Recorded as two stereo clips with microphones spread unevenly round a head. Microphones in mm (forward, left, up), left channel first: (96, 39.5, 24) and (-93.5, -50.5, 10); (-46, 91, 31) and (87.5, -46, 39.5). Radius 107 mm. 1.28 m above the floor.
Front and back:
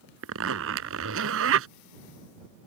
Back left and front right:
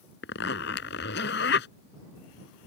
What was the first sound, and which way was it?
A zipper, 175° left.